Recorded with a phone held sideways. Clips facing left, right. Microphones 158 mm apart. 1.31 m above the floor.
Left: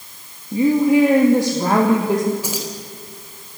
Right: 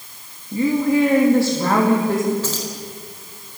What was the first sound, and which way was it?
A woman speaking, 20° left (ahead or behind).